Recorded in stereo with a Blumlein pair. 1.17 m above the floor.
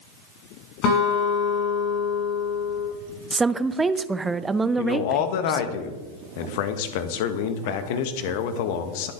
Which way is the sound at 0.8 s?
35° left.